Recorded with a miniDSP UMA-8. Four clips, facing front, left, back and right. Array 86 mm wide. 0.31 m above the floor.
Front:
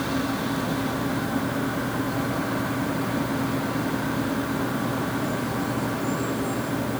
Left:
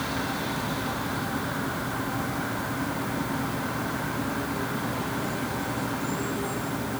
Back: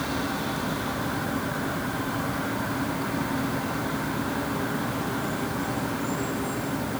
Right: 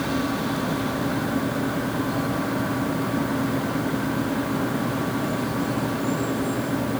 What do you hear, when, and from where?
Only background noise.